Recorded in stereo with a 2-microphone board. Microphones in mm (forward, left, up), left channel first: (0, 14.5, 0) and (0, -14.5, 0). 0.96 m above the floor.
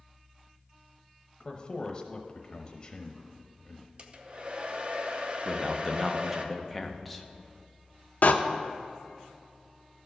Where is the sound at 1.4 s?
25° left (ahead or behind), 0.9 m.